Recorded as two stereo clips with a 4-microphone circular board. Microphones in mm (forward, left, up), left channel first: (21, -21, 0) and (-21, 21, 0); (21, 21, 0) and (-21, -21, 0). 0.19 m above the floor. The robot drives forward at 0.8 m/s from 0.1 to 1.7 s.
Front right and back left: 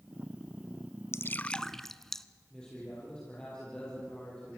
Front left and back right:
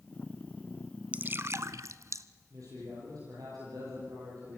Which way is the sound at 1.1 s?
75° right.